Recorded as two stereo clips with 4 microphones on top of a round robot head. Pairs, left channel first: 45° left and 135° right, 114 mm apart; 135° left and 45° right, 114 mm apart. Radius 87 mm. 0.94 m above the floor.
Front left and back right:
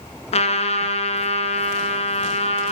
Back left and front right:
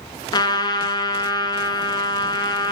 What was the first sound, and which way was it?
A trumpet, 80° left.